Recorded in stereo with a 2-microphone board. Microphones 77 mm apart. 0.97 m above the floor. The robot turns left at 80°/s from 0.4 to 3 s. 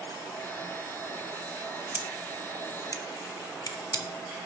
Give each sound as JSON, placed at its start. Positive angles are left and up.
{"t": 1.9, "sound": "scissors", "side_deg": -25, "distance_m": 0.6}